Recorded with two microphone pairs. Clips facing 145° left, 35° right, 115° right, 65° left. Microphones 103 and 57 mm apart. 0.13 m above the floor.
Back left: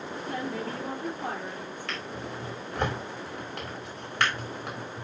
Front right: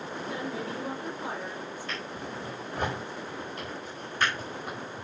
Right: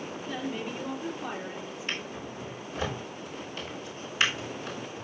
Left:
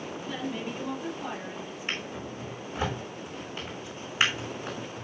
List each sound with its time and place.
0.3 s a woman speaking: 160° left, 3 m
1.9 s a drawer: 130° left, 5 m